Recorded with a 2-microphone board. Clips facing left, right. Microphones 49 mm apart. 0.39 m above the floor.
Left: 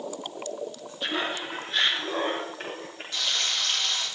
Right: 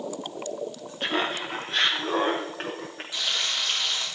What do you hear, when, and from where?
1.0 s laughter: 50° right (ahead or behind), 2.5 m; by 3.0 s 60° right (ahead or behind), 4.5 m
3.1 s frying: 15° right (ahead or behind), 6 m